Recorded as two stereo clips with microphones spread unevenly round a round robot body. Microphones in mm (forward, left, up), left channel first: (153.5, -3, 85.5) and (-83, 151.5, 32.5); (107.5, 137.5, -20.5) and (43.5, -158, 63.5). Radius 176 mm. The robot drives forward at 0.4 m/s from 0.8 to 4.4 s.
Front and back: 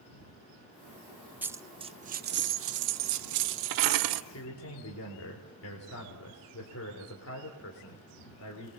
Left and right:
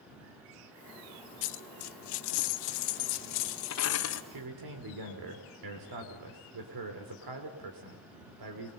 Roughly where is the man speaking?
Right.